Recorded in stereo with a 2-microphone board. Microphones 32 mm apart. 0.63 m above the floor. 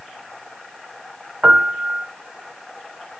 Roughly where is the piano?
Right.